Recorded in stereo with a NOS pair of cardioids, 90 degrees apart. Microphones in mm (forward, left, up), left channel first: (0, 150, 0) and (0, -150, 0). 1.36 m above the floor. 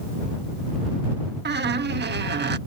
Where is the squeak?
35° right.